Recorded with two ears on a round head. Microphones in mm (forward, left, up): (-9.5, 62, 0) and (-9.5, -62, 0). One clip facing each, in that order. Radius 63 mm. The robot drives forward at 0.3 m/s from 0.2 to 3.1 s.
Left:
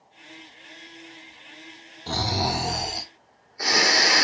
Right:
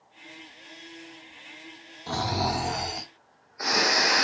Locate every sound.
2.1 s snoring: 20° left (ahead or behind), 1.2 m; by 4.2 s 25° left (ahead or behind), 1.1 m